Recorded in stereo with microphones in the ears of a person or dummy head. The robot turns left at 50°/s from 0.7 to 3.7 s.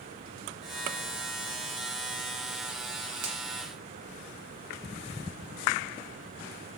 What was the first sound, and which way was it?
A finger snap, 65° right (ahead or behind).